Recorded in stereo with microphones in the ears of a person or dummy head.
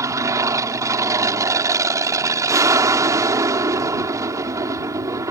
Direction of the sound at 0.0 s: 25° right (ahead or behind).